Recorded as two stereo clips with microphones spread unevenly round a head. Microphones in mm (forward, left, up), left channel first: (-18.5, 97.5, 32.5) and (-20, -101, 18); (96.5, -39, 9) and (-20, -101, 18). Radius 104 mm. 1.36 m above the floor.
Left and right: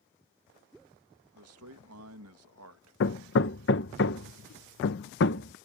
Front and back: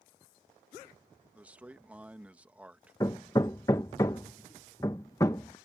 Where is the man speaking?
70° right.